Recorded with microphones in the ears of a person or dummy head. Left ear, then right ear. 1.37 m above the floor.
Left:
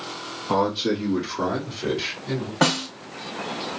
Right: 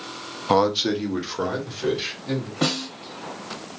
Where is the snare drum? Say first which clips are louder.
Left 4 dB; 45° left (ahead or behind), 1.1 m.